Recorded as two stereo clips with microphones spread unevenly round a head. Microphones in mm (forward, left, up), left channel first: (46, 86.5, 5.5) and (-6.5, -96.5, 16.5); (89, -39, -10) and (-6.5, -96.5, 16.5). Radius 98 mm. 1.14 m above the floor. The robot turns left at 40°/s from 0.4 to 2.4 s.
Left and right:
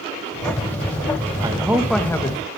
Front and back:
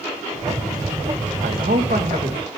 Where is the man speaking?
Straight behind, 1.2 m; by 2.4 s 145° left, 1.2 m.